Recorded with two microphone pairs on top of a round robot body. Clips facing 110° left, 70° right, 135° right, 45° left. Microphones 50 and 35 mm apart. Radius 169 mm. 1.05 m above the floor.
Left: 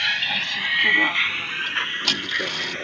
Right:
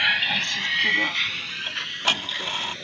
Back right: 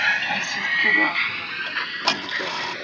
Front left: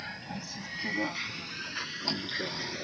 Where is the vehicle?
145° right; by 2.9 s 165° left.